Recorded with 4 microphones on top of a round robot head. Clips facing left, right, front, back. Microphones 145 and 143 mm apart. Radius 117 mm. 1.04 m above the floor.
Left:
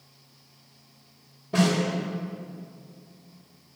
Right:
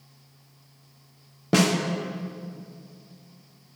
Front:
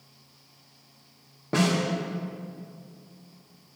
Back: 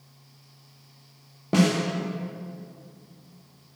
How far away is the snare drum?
About 1.5 m.